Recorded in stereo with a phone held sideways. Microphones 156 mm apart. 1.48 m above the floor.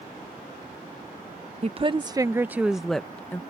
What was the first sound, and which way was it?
A woman speaking, 40° right (ahead or behind).